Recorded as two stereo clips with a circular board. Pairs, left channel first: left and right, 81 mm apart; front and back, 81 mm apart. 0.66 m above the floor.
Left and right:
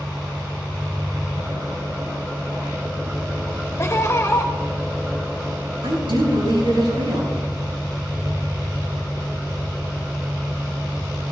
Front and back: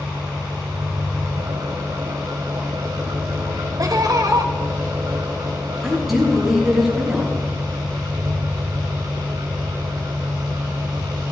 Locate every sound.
0.0 s an engine running: 160° right, 2.5 m
3.8 s laughter: 145° left, 2 m
5.8 s a woman speaking: 90° right, 6 m